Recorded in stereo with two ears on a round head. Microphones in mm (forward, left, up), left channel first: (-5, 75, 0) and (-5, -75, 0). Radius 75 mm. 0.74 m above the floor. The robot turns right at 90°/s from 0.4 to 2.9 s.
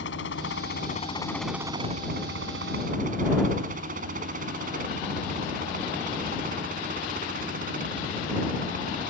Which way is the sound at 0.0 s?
80° left.